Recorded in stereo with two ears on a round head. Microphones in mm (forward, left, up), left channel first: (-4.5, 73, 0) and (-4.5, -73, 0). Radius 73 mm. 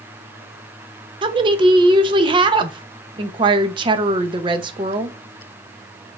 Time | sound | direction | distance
1.2 | a woman speaking | 30° right (ahead or behind) | 0.6 m